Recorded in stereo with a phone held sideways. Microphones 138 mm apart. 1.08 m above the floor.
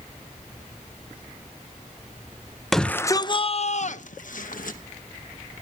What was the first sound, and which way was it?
A shout, centre (ahead or behind).